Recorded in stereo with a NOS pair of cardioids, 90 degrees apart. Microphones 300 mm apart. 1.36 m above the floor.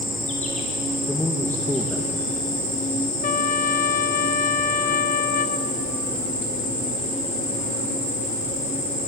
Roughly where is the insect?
Ahead left.